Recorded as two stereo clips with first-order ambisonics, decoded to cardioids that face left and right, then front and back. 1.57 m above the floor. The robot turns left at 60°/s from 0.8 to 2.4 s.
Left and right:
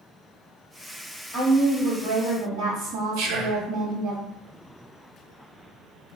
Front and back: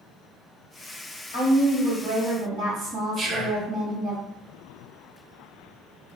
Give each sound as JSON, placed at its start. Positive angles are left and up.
{"t": 1.3, "sound": "a woman speaking", "azimuth_deg": -35, "distance_m": 1.8}
{"t": 3.2, "sound": "whispering", "azimuth_deg": -105, "distance_m": 0.6}